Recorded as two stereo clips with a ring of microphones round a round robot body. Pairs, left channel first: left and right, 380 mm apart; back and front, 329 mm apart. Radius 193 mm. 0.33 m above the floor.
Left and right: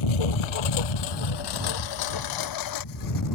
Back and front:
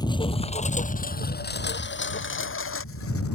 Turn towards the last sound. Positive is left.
turn(degrees=130)